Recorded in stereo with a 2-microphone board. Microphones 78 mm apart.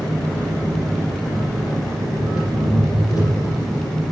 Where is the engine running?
50° left (ahead or behind), 7.5 m.